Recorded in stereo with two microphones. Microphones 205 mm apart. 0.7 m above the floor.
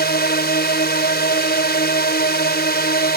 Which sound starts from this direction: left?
A drone, at 0.0 s.